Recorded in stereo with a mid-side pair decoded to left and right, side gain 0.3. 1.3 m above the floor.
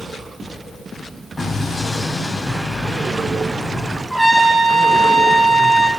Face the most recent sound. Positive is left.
turn(degrees=-25)